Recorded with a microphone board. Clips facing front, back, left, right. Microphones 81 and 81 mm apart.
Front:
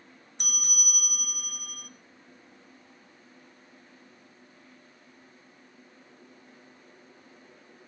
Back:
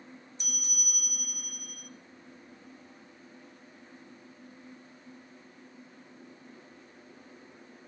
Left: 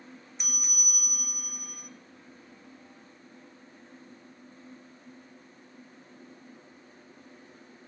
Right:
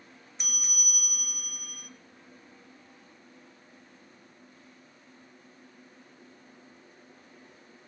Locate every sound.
0.4 s a bell: straight ahead, 1.2 m